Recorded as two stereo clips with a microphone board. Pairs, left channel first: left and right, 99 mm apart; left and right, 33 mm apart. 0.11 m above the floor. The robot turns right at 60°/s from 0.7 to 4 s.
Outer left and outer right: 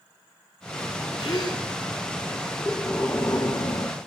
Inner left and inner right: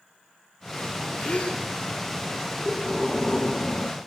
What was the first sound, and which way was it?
A gasp, 40° left (ahead or behind).